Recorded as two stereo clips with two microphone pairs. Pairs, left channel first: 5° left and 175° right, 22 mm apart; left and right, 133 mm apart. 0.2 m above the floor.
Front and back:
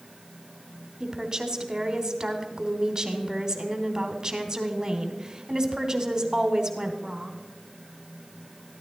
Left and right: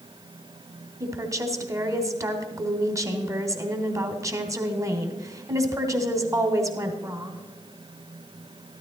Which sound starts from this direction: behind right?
A woman speaking, at 1.0 s.